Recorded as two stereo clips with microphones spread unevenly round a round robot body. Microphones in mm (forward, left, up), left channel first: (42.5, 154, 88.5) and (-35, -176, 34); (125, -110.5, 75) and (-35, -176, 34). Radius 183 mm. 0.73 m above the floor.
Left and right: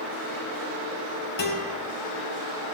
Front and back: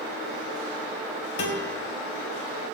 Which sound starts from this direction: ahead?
A guitar, at 1.4 s.